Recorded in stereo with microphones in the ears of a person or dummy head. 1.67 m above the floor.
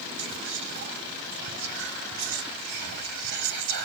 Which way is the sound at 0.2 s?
55° right (ahead or behind).